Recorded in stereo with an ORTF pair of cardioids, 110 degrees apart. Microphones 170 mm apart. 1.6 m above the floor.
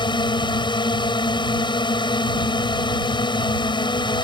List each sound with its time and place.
0.0 s a drone: 30° left